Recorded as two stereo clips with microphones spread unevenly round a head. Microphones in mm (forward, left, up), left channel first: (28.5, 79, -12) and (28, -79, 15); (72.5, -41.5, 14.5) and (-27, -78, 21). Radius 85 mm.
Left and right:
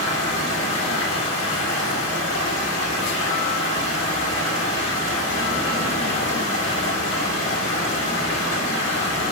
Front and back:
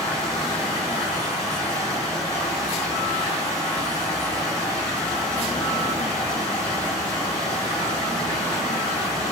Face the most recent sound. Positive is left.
turn(degrees=90)